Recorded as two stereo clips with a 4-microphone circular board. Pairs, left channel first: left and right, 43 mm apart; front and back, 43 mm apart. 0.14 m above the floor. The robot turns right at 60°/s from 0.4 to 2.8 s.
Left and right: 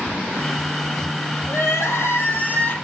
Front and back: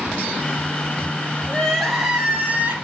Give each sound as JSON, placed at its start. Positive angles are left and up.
{"t": 1.5, "sound": "crying", "azimuth_deg": 65, "distance_m": 2.5}